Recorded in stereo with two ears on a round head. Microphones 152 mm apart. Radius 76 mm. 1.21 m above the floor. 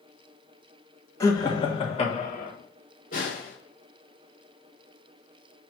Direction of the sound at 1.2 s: 20° left (ahead or behind).